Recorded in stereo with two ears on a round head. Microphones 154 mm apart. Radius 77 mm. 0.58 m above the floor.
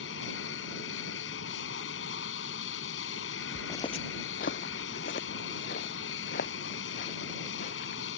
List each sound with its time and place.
0.0 s an aircraft: 75° left (ahead or behind)
3.5 s footsteps: centre (ahead or behind); by 8.0 s 50° left (ahead or behind)